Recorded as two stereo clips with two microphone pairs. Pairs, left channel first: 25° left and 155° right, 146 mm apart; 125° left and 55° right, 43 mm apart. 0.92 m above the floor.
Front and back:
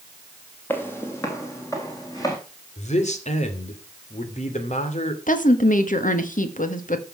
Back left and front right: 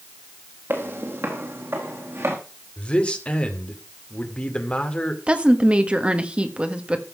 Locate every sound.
0.7 s footsteps: 50° right, 2.5 m; by 2.4 s 40° right, 4 m
2.8 s a man speaking: 65° left, 2.5 m
5.3 s a woman speaking: 10° left, 1.6 m